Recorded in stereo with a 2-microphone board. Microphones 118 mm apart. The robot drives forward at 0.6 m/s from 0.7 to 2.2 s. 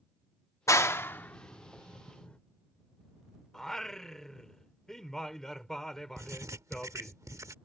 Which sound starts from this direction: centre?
Singing, at 3.5 s.